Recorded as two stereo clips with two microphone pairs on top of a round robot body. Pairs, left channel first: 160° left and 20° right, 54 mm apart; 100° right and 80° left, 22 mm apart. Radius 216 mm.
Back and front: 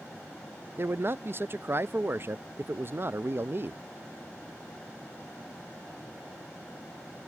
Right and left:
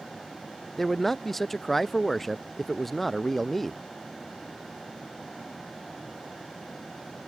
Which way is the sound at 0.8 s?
30° right.